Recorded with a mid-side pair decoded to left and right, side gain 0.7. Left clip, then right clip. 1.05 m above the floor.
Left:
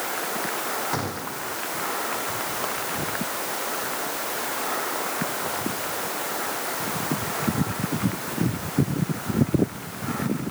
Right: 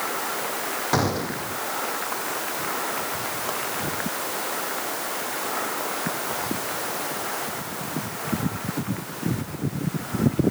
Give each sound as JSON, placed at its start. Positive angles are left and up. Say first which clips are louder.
{"t": 0.9, "sound": "a gunshot", "louder": "right 5 dB", "azimuth_deg": -30}